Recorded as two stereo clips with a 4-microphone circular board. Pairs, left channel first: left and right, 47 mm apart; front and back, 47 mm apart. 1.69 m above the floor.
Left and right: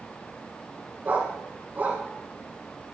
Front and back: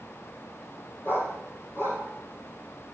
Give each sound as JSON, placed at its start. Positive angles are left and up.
{"t": 1.0, "sound": "a dog barking", "azimuth_deg": -35, "distance_m": 5.0}